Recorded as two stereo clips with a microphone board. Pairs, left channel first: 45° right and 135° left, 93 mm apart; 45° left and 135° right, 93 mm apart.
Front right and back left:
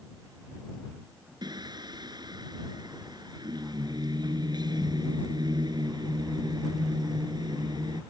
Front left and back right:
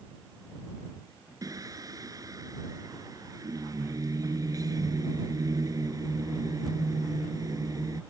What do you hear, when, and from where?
1.4 s singing: 175° left